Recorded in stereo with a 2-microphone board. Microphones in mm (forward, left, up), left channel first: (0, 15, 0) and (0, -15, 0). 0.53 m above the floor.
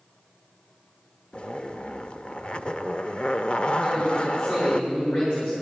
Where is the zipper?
40° left (ahead or behind), 0.5 m.